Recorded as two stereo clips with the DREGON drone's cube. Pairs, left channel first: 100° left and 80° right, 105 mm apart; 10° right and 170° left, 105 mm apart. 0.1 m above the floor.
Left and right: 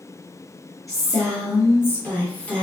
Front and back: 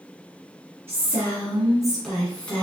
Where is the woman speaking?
115° left, 1.6 m; by 2.6 s 40° left, 1.4 m.